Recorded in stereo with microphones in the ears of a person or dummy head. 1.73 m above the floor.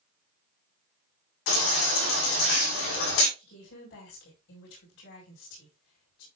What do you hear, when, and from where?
1.5 s a baby crying: 75° left (ahead or behind), 7 m
3.4 s a woman speaking: 75° left (ahead or behind), 5 m